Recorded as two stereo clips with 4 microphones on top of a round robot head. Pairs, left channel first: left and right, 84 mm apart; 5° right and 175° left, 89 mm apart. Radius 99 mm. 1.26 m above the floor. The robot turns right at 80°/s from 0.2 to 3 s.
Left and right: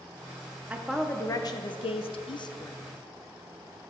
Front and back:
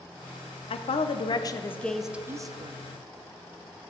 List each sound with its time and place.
0.7 s a woman speaking: 15° right, 0.7 m; by 2.7 s 145° left, 0.7 m